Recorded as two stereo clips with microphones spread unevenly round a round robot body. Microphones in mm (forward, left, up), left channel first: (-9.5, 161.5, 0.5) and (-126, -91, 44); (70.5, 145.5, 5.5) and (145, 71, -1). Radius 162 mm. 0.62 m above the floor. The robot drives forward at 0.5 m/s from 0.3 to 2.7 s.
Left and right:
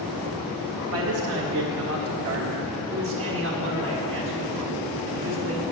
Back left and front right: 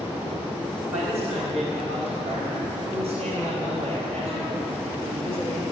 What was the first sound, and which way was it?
A man speaking, 140° right.